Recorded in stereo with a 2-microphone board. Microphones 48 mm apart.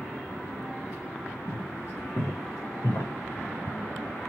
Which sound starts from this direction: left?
Footsteps, at 1.5 s.